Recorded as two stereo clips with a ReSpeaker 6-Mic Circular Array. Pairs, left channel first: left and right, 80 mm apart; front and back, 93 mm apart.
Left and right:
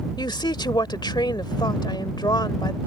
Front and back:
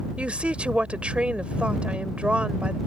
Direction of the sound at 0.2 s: 105° left.